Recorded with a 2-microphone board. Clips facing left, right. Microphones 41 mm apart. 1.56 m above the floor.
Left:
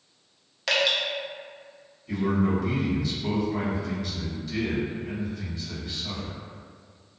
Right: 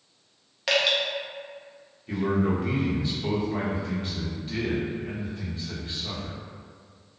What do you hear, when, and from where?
0.7 s dripping: 5° right (ahead or behind), 0.6 m
2.1 s a man speaking: 35° right (ahead or behind), 0.9 m